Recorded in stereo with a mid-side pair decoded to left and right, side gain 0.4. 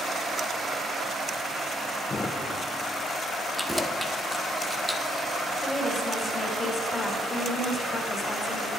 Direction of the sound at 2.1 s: 35° left.